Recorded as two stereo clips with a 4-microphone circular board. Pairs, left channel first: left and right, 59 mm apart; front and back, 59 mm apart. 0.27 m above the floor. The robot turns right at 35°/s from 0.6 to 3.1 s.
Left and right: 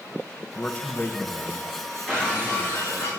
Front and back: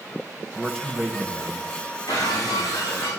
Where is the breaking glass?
10° left, 8 m; by 3.1 s 50° left, 8 m.